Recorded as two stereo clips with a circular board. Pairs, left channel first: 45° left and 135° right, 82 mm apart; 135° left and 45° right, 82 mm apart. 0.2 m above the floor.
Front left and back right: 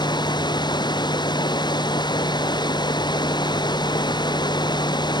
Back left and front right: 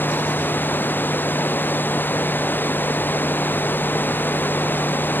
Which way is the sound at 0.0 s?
70° left.